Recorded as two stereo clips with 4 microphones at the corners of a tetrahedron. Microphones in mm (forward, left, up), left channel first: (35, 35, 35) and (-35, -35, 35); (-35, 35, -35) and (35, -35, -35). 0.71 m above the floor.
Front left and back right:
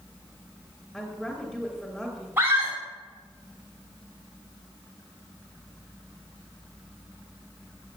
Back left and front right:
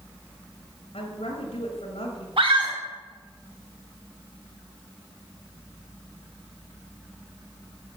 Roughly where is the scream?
Right.